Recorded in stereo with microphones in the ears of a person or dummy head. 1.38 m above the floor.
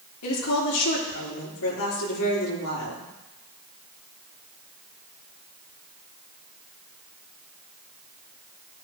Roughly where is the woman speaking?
Left.